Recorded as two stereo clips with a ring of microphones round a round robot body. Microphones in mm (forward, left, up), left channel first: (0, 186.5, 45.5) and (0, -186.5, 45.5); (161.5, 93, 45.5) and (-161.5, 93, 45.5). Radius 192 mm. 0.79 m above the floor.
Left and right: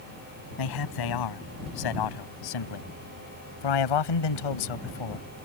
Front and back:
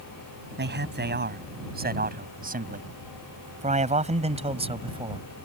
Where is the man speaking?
120° left; by 5.3 s 105° left.